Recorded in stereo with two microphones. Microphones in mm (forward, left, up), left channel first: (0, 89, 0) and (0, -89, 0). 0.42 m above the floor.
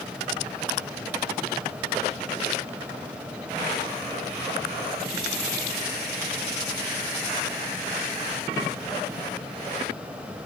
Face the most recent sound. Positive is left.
No sound to turn to.